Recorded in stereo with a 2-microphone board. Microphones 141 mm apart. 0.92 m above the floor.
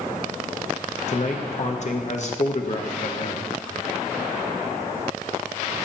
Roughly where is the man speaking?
Left.